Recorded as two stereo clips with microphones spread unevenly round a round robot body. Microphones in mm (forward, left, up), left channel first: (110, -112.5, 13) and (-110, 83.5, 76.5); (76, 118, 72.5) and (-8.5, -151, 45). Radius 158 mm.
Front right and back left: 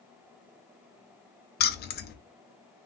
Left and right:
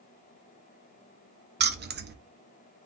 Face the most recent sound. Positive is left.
turn(degrees=-70)